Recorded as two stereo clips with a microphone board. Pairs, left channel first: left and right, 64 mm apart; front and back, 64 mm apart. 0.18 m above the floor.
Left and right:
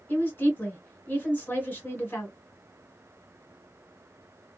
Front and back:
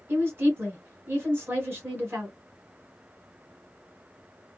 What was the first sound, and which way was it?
A woman speaking, 135° left.